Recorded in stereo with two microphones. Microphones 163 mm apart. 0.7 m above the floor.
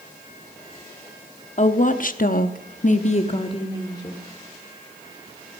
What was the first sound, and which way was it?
A woman speaking, 45° left (ahead or behind).